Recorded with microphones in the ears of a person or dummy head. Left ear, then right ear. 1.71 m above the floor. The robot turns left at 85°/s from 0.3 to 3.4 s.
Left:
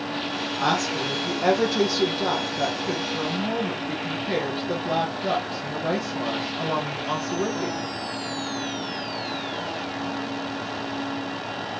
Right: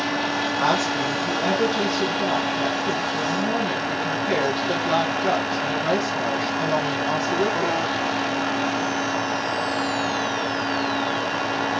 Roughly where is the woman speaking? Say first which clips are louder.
Right 1 dB; behind right.